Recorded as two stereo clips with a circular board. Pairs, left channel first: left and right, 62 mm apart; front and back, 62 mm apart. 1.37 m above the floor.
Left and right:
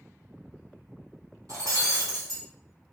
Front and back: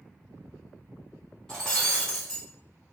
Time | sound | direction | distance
1.5 | breaking glass | 80° right | 3.5 m